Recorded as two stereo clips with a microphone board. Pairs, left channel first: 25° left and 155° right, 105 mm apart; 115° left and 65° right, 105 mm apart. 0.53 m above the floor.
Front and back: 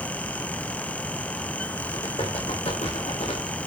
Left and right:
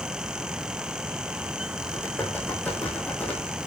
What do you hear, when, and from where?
1.8 s typing on a keyboard: 40° left, 5.5 m